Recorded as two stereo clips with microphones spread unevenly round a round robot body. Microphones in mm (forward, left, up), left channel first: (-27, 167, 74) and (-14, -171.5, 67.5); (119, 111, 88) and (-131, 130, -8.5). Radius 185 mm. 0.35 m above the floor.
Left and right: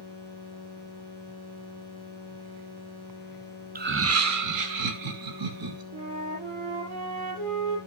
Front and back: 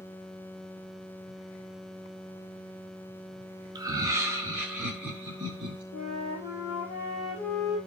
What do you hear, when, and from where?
3.8 s laughter: 140° right, 1.1 m; by 5.8 s 105° right, 3.5 m
5.9 s a flute: 65° right, 6.5 m